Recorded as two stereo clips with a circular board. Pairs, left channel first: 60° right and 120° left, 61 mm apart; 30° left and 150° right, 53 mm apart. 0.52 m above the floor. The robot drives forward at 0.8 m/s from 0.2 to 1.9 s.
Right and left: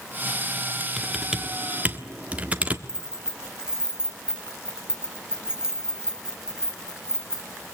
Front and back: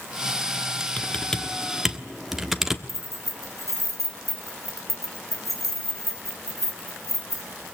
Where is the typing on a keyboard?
45° left, 1.3 m; by 2.8 s 140° left, 1.3 m.